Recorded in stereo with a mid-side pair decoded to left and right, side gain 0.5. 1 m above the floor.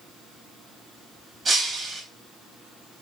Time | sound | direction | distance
1.4 | breaking glass | 35° right | 4 m